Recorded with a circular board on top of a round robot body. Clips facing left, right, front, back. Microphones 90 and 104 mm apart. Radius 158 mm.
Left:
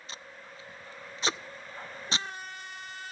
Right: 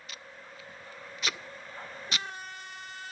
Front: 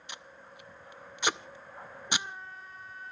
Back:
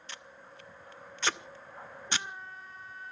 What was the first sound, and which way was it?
Tape being pulled, 60° left.